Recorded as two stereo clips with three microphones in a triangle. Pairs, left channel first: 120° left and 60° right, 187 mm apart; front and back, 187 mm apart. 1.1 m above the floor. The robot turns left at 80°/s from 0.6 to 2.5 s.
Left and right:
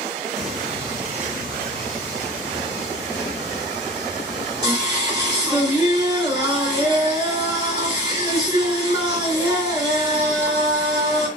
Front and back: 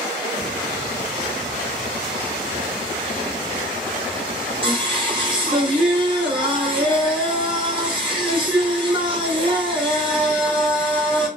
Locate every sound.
0.4 s singing: 30° left, 1.0 m; by 11.3 s 120° right, 1.0 m